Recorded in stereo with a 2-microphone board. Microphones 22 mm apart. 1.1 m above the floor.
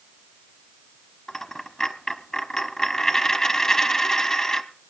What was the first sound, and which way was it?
A dropped coin, 30° left (ahead or behind).